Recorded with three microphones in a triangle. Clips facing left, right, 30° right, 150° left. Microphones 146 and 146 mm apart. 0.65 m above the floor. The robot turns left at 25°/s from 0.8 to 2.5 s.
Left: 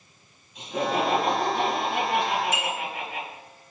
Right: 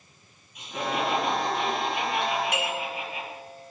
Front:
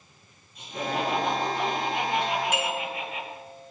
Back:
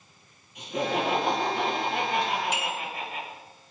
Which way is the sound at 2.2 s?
60° right.